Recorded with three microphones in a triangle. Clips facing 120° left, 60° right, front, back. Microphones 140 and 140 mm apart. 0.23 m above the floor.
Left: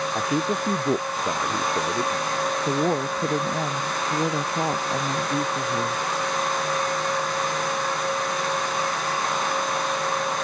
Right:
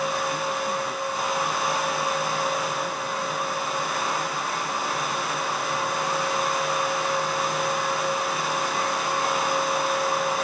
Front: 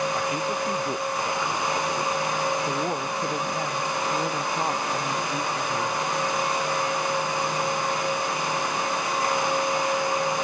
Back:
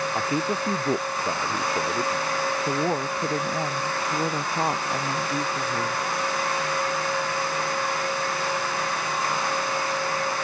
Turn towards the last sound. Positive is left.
turn(degrees=105)